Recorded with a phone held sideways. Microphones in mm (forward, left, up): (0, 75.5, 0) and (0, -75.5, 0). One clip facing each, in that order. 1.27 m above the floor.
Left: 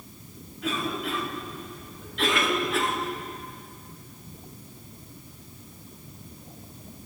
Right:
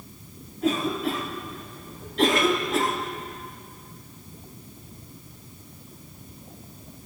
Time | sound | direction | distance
0.6 | a cough | 40° right (ahead or behind) | 3.5 m